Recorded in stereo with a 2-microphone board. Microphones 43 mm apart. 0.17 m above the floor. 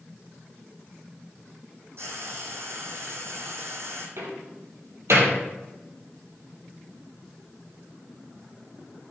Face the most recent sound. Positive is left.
turn(degrees=-75)  # may be behind; listen again after turning